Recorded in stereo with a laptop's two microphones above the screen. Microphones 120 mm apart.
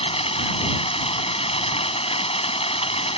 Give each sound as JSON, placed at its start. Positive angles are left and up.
{"t": 0.0, "sound": "running water", "side_deg": 55}